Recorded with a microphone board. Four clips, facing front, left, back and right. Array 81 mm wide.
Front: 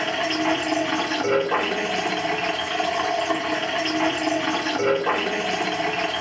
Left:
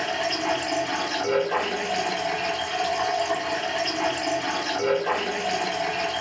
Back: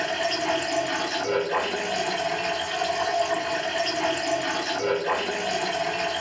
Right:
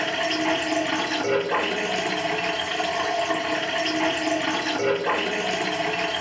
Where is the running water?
10° right, 2 m.